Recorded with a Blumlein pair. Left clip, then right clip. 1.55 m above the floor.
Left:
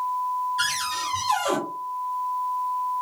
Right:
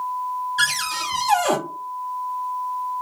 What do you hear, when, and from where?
0.6 s a cupboard door: 65° right, 1.2 m